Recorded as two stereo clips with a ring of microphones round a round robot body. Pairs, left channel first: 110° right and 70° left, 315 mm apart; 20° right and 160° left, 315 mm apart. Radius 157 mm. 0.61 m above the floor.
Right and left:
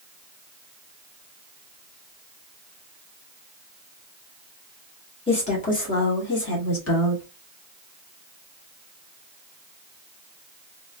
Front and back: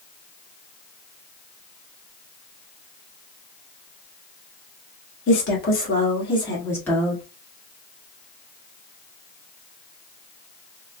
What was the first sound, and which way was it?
A woman speaking, 50° right.